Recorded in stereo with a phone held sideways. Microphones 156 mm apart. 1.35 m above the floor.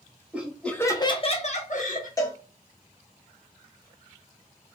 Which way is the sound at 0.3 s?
10° right (ahead or behind).